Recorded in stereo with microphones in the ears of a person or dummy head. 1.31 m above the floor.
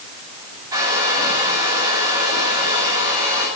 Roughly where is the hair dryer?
Centre.